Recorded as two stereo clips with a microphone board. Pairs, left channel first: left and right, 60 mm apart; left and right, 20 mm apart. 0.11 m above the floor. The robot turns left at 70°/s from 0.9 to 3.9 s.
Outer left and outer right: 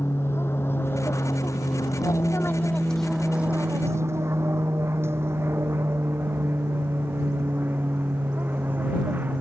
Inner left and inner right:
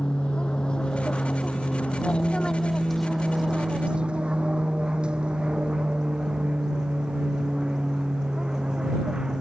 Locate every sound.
0.0 s an aircraft: 45° left (ahead or behind); by 9.4 s 30° right (ahead or behind)